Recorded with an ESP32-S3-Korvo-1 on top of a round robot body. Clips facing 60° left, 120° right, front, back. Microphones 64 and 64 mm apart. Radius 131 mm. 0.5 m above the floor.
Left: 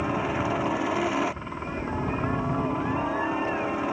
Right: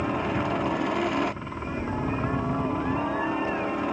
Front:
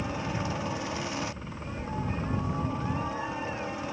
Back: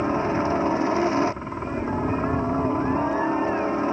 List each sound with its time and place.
0.0 s a helicopter: 145° left